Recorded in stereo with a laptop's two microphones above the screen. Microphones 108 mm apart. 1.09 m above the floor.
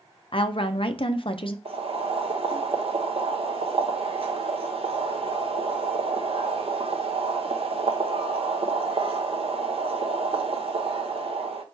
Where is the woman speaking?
55° left (ahead or behind), 0.5 m.